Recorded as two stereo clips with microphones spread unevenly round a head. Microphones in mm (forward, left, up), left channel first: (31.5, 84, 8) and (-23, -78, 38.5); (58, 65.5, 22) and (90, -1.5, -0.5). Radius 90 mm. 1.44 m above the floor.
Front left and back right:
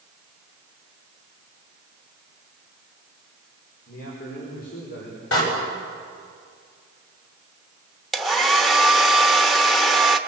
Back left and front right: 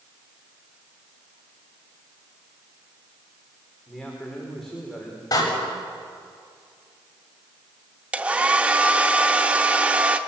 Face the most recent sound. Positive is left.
turn(degrees=-165)